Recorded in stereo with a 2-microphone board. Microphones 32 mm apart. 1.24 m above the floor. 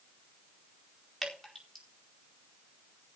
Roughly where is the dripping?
Centre.